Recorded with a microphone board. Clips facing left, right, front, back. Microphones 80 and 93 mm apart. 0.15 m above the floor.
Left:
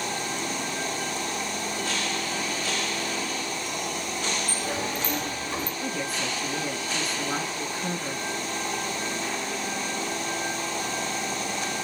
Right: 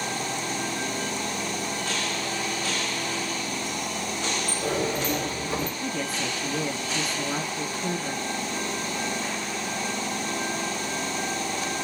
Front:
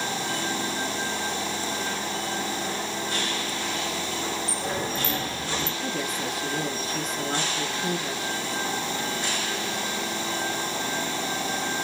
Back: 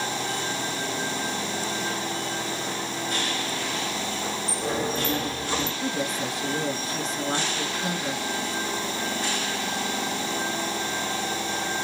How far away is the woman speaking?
About 1.8 m.